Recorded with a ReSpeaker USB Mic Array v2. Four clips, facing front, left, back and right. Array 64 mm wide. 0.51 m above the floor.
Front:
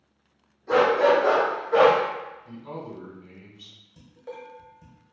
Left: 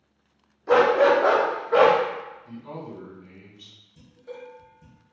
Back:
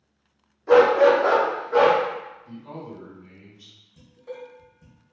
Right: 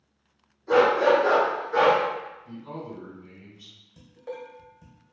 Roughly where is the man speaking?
Ahead left.